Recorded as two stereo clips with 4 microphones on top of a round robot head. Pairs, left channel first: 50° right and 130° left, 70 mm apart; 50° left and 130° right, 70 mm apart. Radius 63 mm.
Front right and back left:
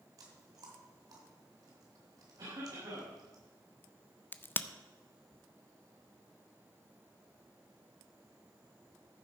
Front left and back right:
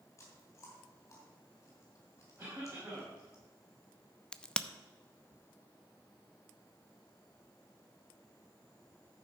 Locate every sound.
0.2 s chewing: 100° left, 4 m
2.4 s a cough: 155° left, 5.5 m
4.3 s a crack: 20° right, 0.7 m